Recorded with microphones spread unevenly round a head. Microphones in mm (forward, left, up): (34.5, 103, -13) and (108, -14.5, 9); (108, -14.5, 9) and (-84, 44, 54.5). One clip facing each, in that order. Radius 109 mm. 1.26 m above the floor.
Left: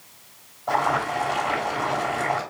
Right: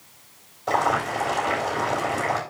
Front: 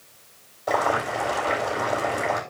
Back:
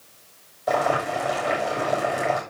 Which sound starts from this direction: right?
Boiling, at 0.7 s.